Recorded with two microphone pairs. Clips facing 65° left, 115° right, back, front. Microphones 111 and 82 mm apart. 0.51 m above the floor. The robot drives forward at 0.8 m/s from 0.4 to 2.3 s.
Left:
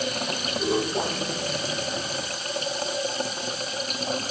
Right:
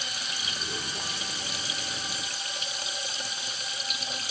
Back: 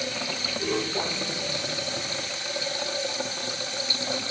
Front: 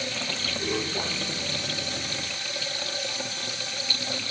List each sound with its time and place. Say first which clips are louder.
0.0 s running water: left 11 dB, back 1 dB; 100° left; by 4.3 s 110° left